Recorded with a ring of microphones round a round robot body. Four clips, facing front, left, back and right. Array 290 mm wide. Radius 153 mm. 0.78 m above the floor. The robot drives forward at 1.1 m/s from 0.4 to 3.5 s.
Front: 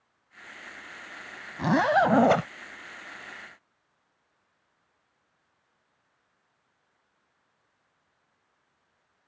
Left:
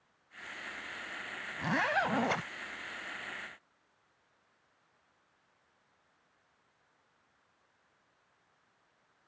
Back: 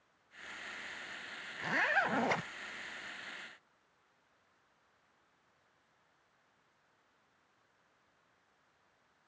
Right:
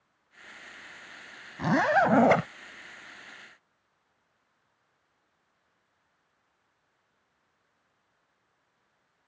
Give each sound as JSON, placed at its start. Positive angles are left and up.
{"t": 1.6, "sound": "a zipper", "azimuth_deg": -30}